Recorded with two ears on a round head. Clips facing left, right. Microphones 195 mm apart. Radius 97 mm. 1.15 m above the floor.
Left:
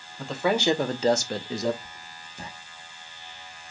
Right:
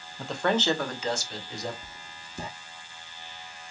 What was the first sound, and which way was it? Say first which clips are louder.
A man speaking: left 2 dB; 5° right (ahead or behind).